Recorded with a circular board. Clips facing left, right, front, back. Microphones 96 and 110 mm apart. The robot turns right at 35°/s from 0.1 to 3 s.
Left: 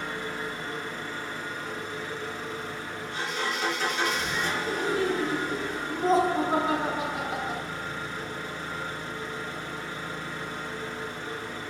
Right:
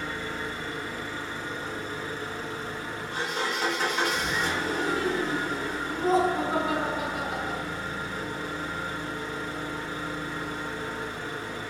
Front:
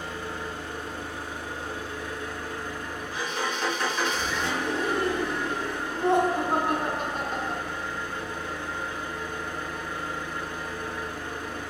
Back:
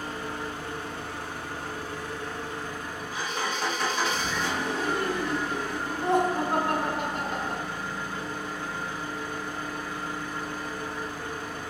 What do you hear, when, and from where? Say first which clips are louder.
0.0 s an engine running: even, even; 160° left, 1.7 m; by 11.7 s 100° right, 1.7 m
4.7 s laughter: left 3 dB, front 4 dB; 45° left, 1.2 m